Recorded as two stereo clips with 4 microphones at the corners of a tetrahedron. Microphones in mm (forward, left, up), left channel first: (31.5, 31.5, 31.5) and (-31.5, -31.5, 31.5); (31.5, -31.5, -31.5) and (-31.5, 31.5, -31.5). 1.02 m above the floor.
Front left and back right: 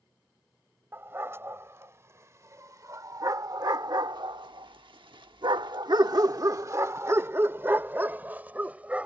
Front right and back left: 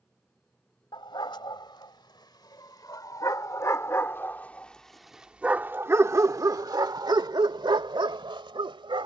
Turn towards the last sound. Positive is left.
turn(degrees=150)